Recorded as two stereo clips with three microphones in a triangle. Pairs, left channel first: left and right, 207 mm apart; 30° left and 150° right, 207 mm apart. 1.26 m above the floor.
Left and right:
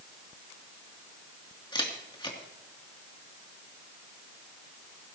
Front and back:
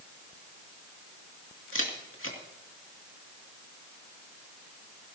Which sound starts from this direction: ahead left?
A camera shutter, at 1.7 s.